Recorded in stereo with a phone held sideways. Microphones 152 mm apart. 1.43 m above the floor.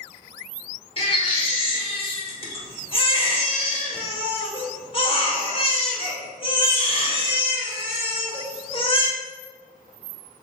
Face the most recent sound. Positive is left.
turn(degrees=35)  # may be behind; listen again after turning